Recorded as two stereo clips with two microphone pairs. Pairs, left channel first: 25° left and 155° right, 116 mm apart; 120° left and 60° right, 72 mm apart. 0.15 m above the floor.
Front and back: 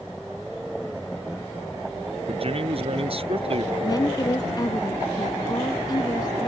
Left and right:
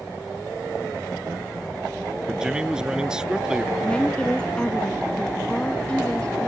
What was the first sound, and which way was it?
A man speaking, 135° right.